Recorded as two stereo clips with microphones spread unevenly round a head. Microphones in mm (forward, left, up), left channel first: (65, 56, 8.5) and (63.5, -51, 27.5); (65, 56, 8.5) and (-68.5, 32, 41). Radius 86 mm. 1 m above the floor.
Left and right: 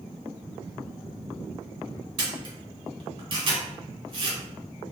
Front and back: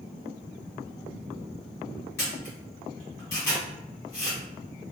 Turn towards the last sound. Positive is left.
turn(degrees=-70)